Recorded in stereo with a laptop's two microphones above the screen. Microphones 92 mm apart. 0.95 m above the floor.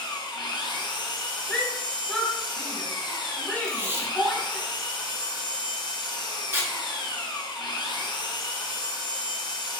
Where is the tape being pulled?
25° right (ahead or behind), 1.3 m.